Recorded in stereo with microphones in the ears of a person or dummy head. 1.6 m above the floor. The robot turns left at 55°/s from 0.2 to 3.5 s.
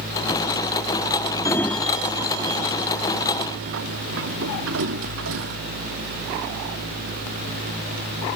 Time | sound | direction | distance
1.4 | a sliding door | 20° left (ahead or behind) | ?